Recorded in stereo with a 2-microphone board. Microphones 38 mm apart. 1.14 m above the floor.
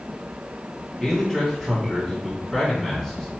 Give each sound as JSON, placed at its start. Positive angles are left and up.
{"t": 1.0, "sound": "a man speaking", "side_deg": -5, "distance_m": 3.0}